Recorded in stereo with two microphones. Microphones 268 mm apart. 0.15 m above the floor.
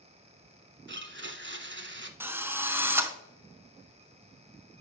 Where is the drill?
10° right (ahead or behind), 0.7 m.